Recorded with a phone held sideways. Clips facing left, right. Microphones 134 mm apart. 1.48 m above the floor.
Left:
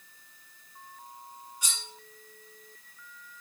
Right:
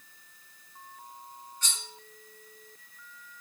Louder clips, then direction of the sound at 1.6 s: Even; 10° left (ahead or behind).